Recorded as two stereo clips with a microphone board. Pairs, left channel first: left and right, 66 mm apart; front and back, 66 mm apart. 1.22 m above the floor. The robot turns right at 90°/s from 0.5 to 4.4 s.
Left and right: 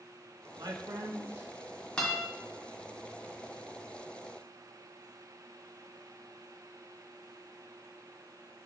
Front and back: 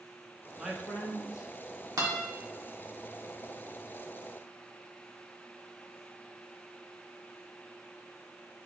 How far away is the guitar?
About 1.3 m.